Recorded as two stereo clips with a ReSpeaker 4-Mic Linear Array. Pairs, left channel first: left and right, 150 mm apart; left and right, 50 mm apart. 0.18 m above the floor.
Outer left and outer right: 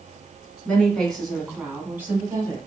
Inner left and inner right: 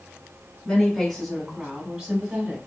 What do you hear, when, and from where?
0.7 s a woman speaking: 10° left (ahead or behind), 1.7 m; by 2.6 s 25° right (ahead or behind), 1.2 m